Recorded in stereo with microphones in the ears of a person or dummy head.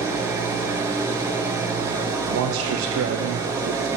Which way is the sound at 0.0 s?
20° right (ahead or behind).